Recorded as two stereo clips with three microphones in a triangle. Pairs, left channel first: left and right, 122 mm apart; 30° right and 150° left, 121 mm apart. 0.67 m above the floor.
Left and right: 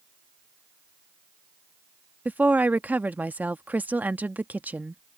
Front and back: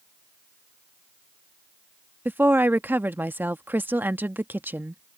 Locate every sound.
2.2 s a woman speaking: 155° right